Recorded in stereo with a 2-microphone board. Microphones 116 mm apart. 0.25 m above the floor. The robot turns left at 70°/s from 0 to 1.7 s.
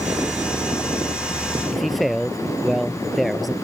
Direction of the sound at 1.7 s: Centre (ahead or behind).